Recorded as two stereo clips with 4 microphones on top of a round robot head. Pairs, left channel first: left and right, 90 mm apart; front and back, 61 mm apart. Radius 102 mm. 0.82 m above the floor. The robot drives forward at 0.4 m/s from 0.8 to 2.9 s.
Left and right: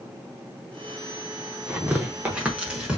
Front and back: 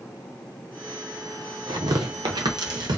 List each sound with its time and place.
1.7 s tearing paper: 160° right, 0.7 m; by 3.0 s 170° right, 1.1 m